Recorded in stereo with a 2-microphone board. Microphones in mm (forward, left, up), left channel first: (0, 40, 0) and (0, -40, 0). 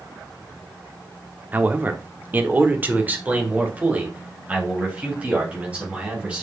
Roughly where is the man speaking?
Right.